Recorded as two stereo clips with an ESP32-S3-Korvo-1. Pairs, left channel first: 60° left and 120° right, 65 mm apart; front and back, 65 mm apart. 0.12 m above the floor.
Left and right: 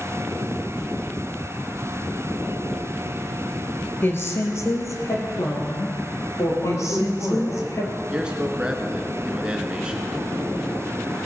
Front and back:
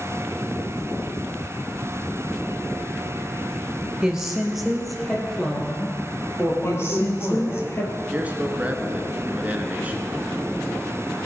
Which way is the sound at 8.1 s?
175° right.